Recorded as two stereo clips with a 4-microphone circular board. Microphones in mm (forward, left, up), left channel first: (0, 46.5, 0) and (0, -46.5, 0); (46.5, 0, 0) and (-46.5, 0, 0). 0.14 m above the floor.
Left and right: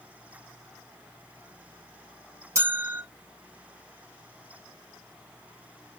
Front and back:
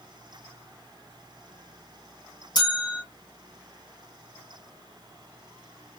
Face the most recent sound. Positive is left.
turn(degrees=-35)